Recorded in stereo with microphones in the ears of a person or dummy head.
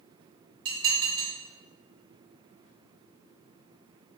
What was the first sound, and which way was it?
Dishes clattering, 60° right (ahead or behind).